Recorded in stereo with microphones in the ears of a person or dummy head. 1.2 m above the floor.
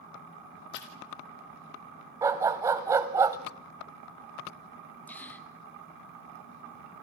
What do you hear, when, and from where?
0.7 s a splash: 60° left (ahead or behind), 3.5 m
2.2 s a dog barking: 15° right (ahead or behind), 1.4 m
5.1 s a gasp: 10° left (ahead or behind), 1.3 m